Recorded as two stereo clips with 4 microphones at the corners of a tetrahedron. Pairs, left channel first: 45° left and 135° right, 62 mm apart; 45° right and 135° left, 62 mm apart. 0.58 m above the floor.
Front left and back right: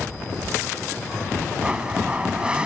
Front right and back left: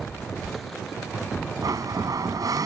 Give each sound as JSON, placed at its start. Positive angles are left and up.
{"t": 1.6, "sound": "a blender", "azimuth_deg": 150}